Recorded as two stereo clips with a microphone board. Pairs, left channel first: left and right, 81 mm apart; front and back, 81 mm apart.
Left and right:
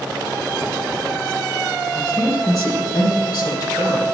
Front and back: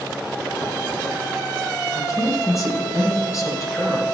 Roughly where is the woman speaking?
Ahead left.